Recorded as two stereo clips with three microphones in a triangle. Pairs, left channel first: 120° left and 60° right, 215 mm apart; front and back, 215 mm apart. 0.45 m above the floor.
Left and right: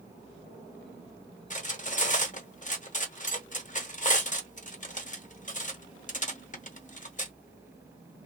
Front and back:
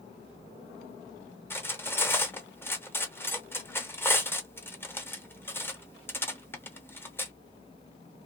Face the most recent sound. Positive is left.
turn(degrees=80)